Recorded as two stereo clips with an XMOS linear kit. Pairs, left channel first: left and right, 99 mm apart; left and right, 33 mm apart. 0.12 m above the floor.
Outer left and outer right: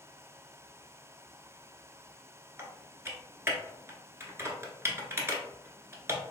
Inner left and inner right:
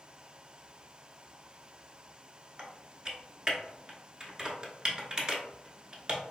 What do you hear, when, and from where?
2.6 s typing on a keyboard: 25° right (ahead or behind), 0.8 m